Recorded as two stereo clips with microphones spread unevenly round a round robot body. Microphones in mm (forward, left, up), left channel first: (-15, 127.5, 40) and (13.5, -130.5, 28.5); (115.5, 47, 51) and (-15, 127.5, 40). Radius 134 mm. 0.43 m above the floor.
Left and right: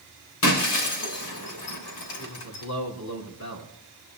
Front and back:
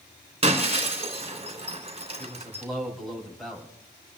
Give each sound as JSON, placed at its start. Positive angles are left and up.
{"t": 0.4, "sound": "breaking glass", "azimuth_deg": 100, "distance_m": 3.5}
{"t": 2.2, "sound": "a man speaking", "azimuth_deg": 60, "distance_m": 3.5}